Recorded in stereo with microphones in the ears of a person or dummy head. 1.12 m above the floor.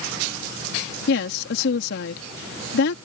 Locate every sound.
1.1 s a woman speaking: 65° left (ahead or behind)